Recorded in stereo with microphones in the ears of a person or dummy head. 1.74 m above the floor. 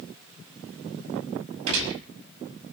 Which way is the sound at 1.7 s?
70° right (ahead or behind).